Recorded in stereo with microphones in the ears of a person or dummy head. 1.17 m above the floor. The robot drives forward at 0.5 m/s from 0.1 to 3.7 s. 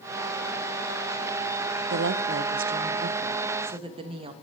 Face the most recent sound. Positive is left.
turn(degrees=-25)  # may be behind; listen again after turning